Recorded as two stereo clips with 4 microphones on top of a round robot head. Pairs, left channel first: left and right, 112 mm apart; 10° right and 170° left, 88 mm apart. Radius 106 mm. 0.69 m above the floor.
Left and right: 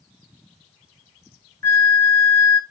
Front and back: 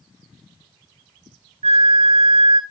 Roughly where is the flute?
Behind.